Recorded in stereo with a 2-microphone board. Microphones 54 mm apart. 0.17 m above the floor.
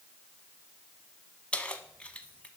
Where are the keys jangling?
25° left (ahead or behind), 0.8 m.